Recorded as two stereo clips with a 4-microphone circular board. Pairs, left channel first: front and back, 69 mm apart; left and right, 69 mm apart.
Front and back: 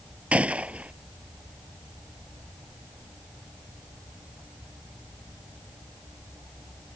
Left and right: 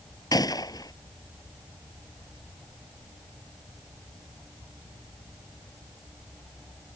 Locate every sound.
0.3 s a gunshot: 110° left